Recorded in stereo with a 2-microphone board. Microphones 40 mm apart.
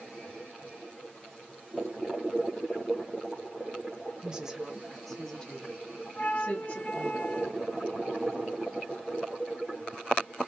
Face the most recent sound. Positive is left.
turn(degrees=40)  # may be behind; listen again after turning